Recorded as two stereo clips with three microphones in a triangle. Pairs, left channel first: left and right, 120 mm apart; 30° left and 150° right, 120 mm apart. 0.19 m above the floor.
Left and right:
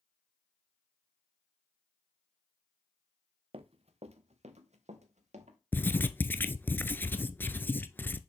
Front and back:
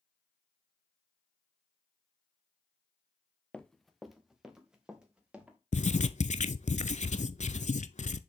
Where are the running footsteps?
50° right, 0.8 m; by 5.6 s 70° right, 3 m.